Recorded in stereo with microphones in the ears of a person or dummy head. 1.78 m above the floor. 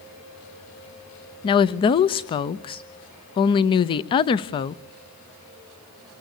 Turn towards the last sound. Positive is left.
turn(degrees=30)  # may be behind; listen again after turning